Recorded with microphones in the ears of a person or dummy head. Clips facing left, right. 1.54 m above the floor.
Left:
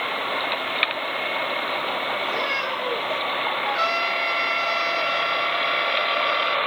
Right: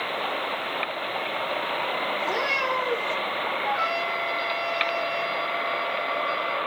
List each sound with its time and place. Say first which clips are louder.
2.2 s a cat meowing: even; 75° right (ahead or behind), 4.5 m
3.6 s a trumpet: left 1 dB; 50° left (ahead or behind), 4.5 m